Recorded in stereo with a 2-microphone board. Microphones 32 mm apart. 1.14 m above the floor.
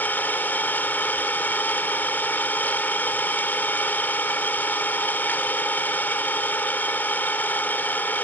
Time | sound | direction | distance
0.0 | an engine running | 80° left | ?